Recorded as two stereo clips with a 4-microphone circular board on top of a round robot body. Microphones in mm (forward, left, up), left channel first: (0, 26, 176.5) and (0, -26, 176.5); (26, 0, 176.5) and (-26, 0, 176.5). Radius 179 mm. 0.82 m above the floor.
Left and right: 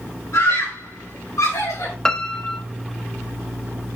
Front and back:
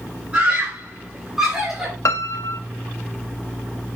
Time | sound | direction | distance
0.3 | a scream | 115° left | 4 m
2.0 | a piano | 15° left | 0.7 m